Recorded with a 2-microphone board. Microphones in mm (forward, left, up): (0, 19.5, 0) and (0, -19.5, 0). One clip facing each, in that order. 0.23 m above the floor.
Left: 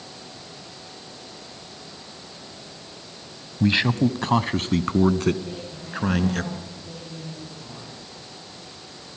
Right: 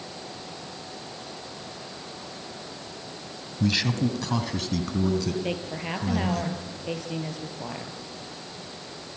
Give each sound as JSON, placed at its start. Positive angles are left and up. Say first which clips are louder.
{"t": 3.6, "sound": "a man speaking", "louder": "left 5 dB", "side_deg": 30, "distance_m": 1.3}
{"t": 5.4, "sound": "a woman speaking", "louder": "right 5 dB", "side_deg": -70, "distance_m": 5.0}